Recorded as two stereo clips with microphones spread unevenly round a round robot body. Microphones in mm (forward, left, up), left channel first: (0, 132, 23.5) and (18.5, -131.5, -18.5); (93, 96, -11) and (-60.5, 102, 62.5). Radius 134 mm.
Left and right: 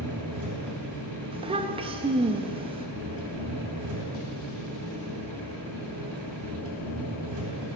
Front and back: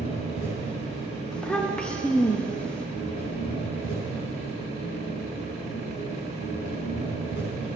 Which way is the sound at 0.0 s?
60° right.